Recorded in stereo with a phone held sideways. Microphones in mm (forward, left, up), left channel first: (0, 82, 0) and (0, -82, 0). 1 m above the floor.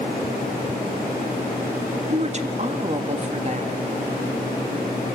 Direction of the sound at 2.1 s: 45° right (ahead or behind).